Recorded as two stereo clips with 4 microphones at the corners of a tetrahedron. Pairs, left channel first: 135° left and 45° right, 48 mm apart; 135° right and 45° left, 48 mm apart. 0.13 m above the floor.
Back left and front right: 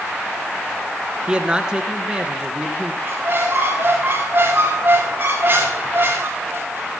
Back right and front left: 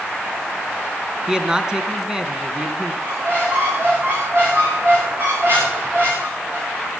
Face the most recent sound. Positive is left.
turn(degrees=5)